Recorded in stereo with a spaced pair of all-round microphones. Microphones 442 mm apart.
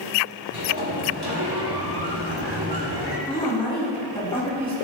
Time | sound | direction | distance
0.5 | a sliding door | 60° right (ahead or behind) | 1.2 m
3.3 | a woman speaking | 10° left (ahead or behind) | 3 m